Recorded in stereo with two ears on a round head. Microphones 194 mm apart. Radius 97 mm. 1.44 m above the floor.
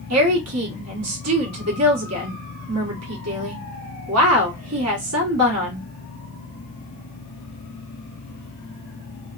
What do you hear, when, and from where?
0.1 s a woman speaking: 80° right, 1.3 m